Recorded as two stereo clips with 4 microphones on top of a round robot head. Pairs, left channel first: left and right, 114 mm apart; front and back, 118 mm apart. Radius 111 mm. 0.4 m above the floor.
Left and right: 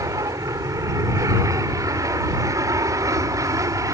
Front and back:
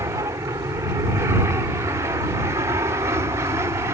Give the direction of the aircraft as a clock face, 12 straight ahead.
4 o'clock.